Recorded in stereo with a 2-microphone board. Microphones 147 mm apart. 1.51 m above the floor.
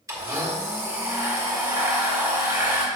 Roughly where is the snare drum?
No snare drum in this recording.